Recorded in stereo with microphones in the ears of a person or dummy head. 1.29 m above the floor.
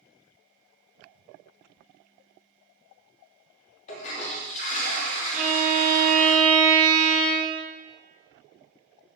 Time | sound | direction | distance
3.9 | a toilet flushing | 40° left (ahead or behind) | 0.5 m
5.3 | a violin | centre (ahead or behind) | 1.0 m